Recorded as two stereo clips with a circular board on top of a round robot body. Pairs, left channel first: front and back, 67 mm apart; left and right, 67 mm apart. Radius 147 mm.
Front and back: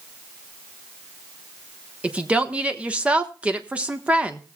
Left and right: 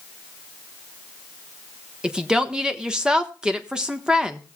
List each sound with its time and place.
2.0 s a woman speaking: 150° right, 1.2 m